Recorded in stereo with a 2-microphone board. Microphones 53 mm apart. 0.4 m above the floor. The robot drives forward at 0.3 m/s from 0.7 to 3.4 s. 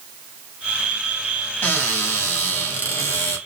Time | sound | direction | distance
1.6 | a cupboard door | 40° left (ahead or behind) | 3 m